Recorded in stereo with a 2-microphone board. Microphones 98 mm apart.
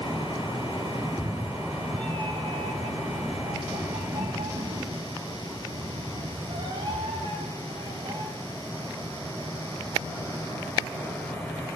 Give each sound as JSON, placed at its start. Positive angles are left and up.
{"t": 1.0, "sound": "a cat meowing", "side_deg": -5, "distance_m": 1.0}